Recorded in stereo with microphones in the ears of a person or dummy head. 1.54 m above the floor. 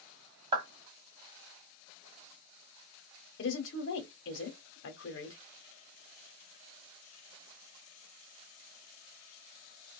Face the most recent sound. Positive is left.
turn(degrees=65)  # may be behind; listen again after turning